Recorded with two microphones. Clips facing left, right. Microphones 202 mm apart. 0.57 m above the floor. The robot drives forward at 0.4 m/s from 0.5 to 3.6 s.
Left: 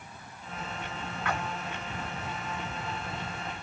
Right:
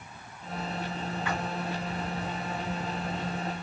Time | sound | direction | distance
1.2 | a splash | 65° left (ahead or behind) | 2 m